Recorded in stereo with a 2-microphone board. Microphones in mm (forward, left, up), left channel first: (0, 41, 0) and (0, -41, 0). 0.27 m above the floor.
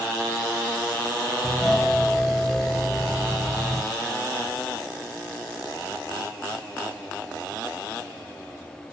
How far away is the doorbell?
About 1.9 m.